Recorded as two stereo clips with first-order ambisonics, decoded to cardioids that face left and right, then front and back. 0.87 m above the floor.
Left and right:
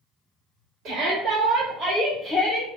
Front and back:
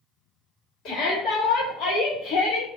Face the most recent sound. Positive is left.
turn(degrees=25)